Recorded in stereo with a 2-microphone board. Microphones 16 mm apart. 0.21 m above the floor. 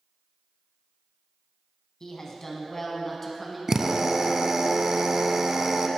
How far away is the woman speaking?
About 1.2 m.